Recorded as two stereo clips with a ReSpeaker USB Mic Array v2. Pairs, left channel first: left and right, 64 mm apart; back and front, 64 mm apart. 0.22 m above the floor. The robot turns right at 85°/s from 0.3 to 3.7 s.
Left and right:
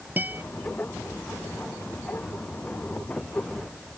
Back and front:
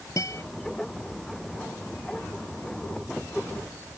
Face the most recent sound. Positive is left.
turn(degrees=140)